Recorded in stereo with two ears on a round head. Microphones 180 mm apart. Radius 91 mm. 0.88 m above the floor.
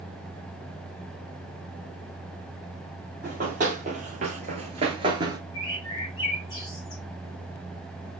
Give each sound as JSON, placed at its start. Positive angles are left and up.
{"t": 3.2, "sound": "running footsteps", "side_deg": -40, "distance_m": 1.5}
{"t": 5.5, "sound": "a bird", "side_deg": 25, "distance_m": 2.5}